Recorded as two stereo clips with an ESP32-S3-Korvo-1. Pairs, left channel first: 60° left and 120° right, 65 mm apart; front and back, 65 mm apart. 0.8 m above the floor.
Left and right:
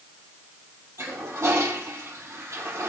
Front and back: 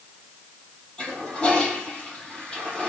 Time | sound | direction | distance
1.0 | a toilet flushing | 75° right | 5 m